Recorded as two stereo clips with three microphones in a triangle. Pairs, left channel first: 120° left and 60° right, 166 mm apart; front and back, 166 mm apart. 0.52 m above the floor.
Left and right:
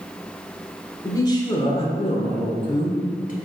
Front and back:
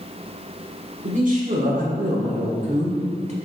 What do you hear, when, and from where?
1.0 s a man speaking: 175° right, 1.6 m; by 3.4 s 140° left, 2.0 m